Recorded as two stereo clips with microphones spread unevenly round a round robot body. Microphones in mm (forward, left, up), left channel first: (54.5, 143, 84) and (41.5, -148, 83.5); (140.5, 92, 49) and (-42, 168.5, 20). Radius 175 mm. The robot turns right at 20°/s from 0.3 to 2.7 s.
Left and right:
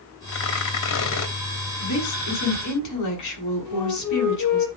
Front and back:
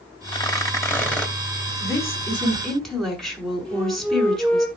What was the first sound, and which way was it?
Tearing paper, 45° left.